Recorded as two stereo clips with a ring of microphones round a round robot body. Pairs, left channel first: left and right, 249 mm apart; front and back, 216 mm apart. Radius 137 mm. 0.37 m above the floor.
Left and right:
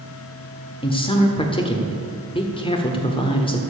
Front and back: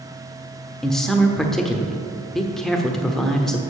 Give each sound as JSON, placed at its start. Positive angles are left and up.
{"t": 0.8, "sound": "a man speaking", "azimuth_deg": 85, "distance_m": 1.2}